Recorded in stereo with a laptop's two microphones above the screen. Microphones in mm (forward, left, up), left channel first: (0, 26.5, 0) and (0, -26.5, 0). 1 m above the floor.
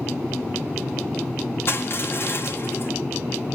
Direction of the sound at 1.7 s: 50° left (ahead or behind).